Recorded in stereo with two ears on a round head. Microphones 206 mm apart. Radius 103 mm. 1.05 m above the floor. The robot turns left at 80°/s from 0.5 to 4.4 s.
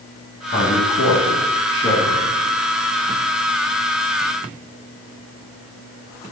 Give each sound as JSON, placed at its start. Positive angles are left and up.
{"t": 0.5, "sound": "a man speaking", "side_deg": 40, "distance_m": 1.1}